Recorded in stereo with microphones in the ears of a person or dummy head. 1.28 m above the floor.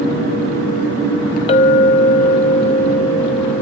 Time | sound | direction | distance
1.5 | a clink | 30° left (ahead or behind) | 0.9 m